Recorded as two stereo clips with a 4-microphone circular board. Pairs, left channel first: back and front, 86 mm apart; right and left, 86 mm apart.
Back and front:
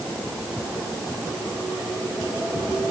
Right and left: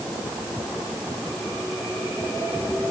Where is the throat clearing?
I don't hear throat clearing.